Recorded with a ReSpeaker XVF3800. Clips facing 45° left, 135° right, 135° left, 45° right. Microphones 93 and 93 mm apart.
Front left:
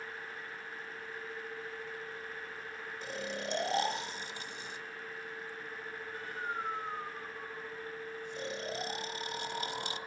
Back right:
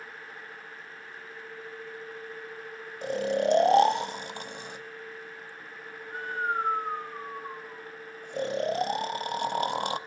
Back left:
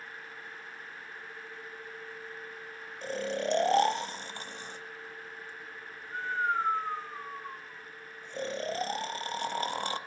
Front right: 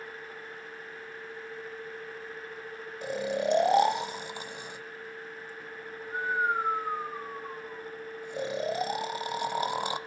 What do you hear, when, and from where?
3.0 s snoring: 120° right, 0.7 m